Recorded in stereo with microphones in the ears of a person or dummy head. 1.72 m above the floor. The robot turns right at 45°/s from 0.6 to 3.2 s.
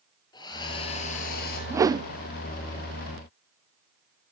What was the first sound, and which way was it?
A hair dryer, 25° left.